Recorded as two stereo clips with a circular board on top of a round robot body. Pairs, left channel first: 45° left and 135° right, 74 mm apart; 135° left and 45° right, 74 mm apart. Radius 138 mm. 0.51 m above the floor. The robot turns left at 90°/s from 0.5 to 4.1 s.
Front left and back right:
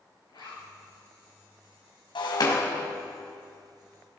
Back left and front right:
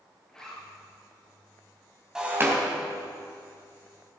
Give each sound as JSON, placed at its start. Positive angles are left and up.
{"t": 0.3, "sound": "a zipper", "azimuth_deg": 55, "distance_m": 7.0}
{"t": 2.1, "sound": "breaking glass", "azimuth_deg": 35, "distance_m": 3.0}